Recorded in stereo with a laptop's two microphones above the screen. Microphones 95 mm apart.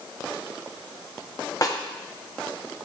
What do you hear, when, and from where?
1.6 s a snare drum: 40° left (ahead or behind), 1.5 m